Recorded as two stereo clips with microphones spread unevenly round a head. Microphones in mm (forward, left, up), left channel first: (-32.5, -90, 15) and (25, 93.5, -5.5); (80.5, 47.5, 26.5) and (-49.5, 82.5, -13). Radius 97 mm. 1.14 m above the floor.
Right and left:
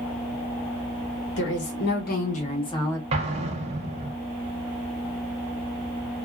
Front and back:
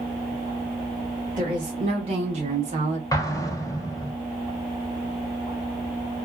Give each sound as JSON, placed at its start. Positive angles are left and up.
{"t": 1.4, "sound": "a woman speaking", "azimuth_deg": -135, "distance_m": 1.5}
{"t": 3.1, "sound": "an explosion", "azimuth_deg": 20, "distance_m": 0.7}